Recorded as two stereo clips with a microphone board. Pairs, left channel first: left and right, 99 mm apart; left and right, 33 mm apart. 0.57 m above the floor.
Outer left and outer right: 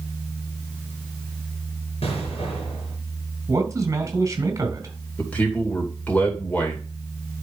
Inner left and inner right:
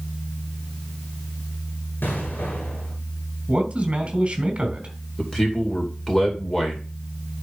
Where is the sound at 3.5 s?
30° right (ahead or behind), 3 m.